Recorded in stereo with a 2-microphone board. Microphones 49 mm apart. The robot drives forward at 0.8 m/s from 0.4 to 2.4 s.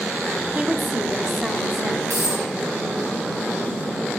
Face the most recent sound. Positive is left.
turn(degrees=-70)  # may be behind; listen again after turning